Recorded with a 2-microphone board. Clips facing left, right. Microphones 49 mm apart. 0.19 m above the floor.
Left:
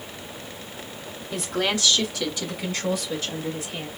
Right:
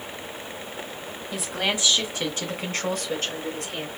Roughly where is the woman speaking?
Centre.